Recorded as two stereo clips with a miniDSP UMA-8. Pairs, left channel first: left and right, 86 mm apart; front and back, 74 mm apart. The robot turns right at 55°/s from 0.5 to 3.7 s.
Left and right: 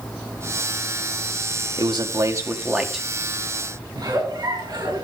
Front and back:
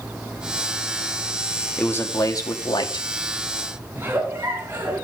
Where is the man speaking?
70° right, 1.7 m; by 3.1 s straight ahead, 1.7 m.